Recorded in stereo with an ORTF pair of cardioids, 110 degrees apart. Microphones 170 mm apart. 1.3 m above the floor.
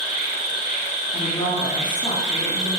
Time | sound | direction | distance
0.0 | an insect | 50° right | 2 m
1.1 | a woman speaking | 30° left | 2 m